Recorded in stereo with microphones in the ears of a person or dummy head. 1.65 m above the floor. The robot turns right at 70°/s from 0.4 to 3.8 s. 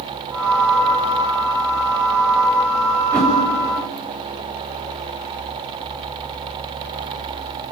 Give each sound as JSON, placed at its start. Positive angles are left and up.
{"t": 3.1, "sound": "a whoosh", "side_deg": -15, "distance_m": 5.0}